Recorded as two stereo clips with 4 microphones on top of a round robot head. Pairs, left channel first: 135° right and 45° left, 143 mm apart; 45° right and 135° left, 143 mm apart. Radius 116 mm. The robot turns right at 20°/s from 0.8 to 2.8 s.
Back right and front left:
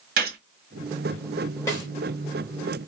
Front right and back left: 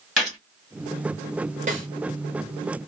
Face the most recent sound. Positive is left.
turn(degrees=180)